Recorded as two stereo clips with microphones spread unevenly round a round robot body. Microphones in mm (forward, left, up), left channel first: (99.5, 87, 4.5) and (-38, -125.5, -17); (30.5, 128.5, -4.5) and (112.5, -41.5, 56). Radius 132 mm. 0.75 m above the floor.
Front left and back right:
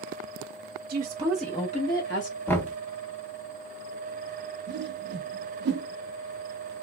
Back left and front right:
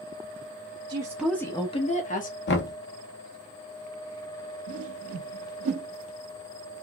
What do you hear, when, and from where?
0.9 s a woman speaking: 140° right, 0.7 m; by 2.4 s 100° left, 1.2 m
2.5 s knocking: 140° left, 0.6 m
4.7 s a whoosh: 75° right, 0.6 m